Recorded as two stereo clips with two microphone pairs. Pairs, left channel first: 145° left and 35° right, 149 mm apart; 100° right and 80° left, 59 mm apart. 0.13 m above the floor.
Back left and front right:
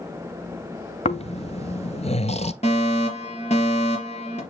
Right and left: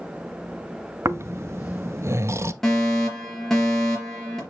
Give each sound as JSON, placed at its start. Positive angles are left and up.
{"t": 1.1, "sound": "snoring", "azimuth_deg": 110, "distance_m": 0.5}
{"t": 2.6, "sound": "a fire alarm", "azimuth_deg": 180, "distance_m": 4.0}